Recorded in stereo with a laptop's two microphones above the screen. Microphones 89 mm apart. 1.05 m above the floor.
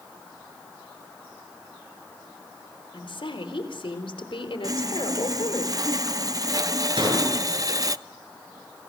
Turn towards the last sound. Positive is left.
turn(degrees=-65)  # may be behind; listen again after turning